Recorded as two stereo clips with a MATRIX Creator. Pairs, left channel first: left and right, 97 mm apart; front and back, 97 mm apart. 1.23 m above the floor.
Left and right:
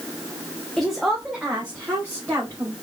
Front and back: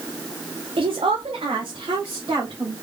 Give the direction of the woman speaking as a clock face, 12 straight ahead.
6 o'clock.